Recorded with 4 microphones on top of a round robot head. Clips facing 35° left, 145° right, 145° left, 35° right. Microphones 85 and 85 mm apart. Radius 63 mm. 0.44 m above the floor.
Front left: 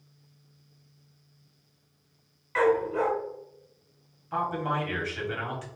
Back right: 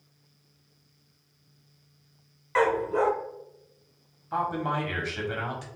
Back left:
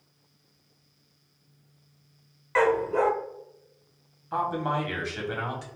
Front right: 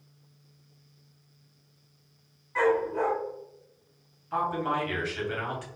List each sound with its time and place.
2.5 s a dog barking: 155° left, 0.6 m
4.3 s a man speaking: 170° left, 1.3 m